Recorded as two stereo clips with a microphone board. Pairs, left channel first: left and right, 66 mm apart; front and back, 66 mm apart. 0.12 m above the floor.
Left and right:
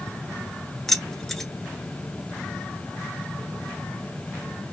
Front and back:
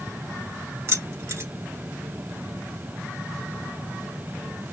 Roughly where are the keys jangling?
Behind.